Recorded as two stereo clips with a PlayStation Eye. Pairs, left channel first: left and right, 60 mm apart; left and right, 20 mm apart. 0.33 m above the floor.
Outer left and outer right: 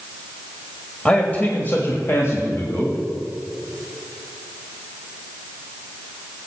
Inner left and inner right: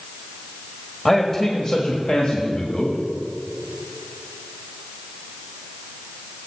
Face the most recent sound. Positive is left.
turn(degrees=60)  # may be behind; listen again after turning